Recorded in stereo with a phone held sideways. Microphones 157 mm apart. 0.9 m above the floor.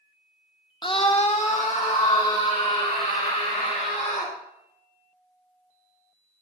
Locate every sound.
0.8 s a scream: 30° left (ahead or behind), 0.5 m; by 4.3 s 50° left (ahead or behind), 4 m